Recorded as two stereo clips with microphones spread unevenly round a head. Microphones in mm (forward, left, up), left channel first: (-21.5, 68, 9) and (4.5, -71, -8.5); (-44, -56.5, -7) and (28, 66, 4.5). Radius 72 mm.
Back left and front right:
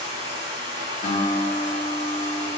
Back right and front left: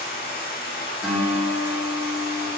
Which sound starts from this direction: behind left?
A guitar, at 1.0 s.